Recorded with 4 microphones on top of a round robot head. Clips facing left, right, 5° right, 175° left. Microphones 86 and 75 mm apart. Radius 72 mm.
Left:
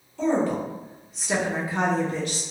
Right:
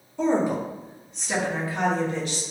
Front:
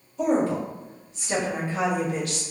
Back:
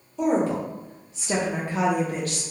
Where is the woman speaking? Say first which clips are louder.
Right 1 dB, even; 165° right, 1.2 m; by 2.4 s 120° left, 0.7 m.